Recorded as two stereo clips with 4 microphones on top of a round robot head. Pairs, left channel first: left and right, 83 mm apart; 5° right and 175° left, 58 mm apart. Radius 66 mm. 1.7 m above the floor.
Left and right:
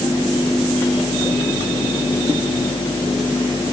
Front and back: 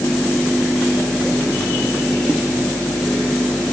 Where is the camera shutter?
I don't hear a camera shutter.